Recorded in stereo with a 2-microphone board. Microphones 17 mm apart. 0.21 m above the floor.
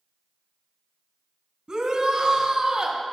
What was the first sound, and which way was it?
A shout, 40° right (ahead or behind).